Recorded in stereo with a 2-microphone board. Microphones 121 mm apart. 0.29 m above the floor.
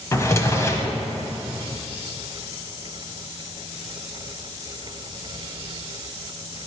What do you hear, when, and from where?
0.1 s a drawer: 25° left (ahead or behind), 0.9 m